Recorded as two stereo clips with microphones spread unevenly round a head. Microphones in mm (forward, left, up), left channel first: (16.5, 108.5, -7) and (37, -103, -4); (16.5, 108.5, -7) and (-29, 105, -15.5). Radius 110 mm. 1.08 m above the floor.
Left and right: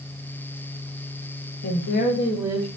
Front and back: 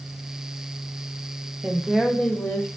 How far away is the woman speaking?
About 0.9 m.